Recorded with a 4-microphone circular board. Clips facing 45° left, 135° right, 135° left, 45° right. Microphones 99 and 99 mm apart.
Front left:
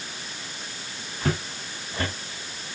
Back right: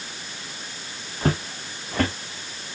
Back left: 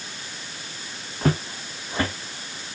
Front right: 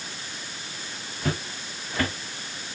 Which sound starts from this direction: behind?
Footsteps, at 1.2 s.